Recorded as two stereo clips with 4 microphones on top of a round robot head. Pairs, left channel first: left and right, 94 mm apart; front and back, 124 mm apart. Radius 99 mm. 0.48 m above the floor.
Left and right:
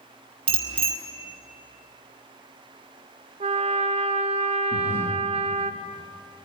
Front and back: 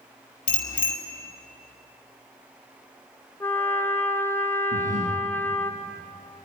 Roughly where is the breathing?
Behind left.